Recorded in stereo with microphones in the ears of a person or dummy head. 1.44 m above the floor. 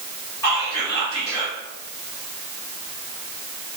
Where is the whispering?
15° left (ahead or behind), 1.8 m.